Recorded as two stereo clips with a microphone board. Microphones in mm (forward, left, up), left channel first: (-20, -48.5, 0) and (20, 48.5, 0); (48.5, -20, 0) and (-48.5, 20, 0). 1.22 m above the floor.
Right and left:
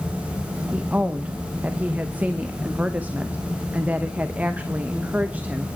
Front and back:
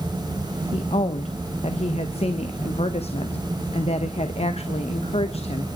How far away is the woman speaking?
About 1.1 m.